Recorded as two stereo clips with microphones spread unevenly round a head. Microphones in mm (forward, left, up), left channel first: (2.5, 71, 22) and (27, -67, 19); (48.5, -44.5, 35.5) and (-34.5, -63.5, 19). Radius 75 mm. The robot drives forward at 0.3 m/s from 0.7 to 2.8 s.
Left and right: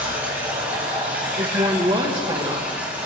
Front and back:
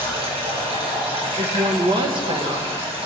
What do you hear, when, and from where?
0.0 s running water: 160° right, 5.5 m
1.4 s a woman speaking: 140° right, 1.8 m; by 2.7 s 145° right, 2 m